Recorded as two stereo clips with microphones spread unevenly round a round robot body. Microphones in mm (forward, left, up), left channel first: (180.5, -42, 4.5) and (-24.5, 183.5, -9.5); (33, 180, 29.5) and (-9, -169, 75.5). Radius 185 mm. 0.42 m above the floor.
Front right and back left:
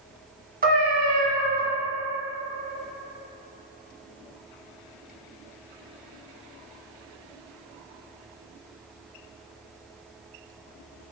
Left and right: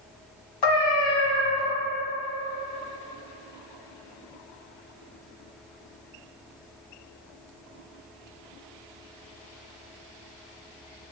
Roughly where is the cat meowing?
Left.